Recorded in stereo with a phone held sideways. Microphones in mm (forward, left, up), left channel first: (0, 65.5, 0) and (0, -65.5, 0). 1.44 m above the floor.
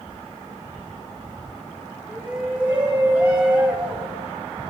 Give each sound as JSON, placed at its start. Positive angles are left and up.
{"t": 2.1, "sound": "a shout", "side_deg": -15, "distance_m": 2.0}